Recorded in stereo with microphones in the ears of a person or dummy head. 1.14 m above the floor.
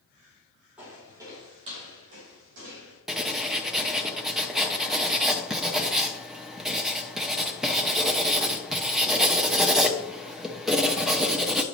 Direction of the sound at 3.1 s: Centre (ahead or behind).